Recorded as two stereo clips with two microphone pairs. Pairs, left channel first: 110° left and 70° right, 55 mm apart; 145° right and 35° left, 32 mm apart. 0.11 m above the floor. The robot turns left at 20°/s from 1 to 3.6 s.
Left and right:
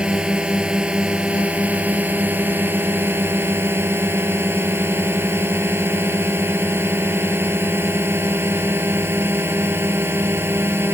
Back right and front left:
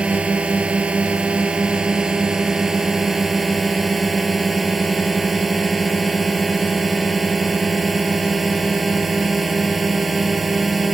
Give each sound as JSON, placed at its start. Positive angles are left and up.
{"t": 0.0, "sound": "a drone", "azimuth_deg": -5}